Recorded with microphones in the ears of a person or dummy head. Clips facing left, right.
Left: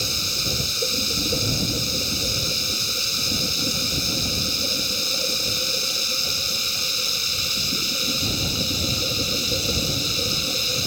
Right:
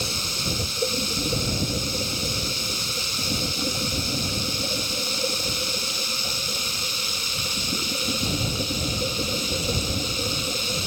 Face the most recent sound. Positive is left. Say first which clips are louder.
# right 1 dB
turn(degrees=25)  # may be behind; listen again after turning